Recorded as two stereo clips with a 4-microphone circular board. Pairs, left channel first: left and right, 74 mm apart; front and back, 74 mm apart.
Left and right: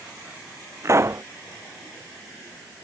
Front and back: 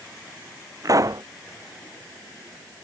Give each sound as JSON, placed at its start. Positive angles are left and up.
{"t": 0.8, "sound": "a pop", "azimuth_deg": -140}